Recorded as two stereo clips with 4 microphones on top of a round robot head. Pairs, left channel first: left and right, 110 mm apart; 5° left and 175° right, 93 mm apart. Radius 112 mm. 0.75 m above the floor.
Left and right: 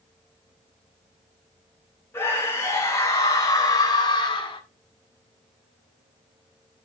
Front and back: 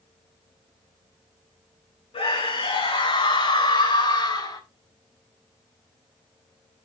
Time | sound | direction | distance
2.1 | a scream | 20° left | 7 m